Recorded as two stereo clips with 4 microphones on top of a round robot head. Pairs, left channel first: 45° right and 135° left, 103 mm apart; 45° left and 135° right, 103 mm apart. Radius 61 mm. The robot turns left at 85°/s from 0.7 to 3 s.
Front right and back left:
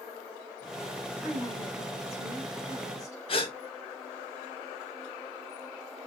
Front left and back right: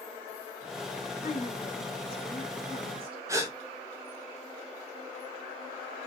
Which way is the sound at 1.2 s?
50° left.